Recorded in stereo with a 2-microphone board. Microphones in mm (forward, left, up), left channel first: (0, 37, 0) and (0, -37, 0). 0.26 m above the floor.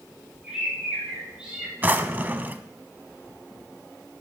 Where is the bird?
10° right (ahead or behind), 7 m.